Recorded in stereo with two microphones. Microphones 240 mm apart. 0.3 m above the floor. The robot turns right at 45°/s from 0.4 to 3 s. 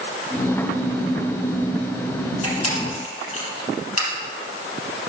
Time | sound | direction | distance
2.4 | a camera shutter | 75° left (ahead or behind) | 4 m